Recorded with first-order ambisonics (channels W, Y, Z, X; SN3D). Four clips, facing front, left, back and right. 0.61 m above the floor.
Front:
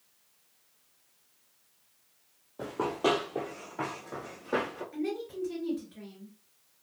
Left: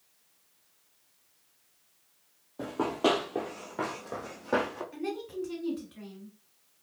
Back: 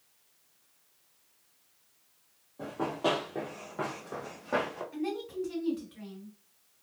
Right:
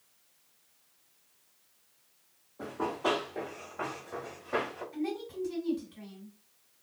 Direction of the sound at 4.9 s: 120° left.